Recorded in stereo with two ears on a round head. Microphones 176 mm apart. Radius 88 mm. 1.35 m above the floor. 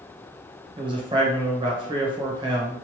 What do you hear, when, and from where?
0.8 s a man speaking: 25° right (ahead or behind), 0.9 m